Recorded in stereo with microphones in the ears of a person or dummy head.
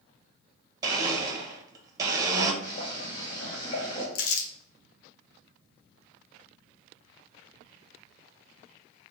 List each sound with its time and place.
0.8 s a blender: 20° right (ahead or behind), 0.9 m
2.6 s boiling: 30° left (ahead or behind), 2 m
4.2 s crumpling: 75° left (ahead or behind), 0.8 m